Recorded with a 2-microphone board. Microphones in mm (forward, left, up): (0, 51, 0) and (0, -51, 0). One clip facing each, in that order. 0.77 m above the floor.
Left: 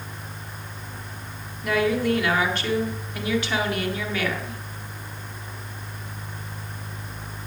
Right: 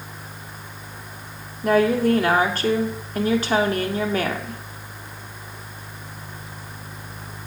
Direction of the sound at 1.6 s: 40° right (ahead or behind).